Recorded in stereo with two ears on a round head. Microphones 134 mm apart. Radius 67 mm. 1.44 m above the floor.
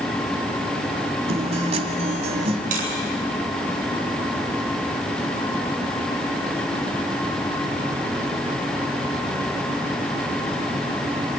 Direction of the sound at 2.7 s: 55° right (ahead or behind).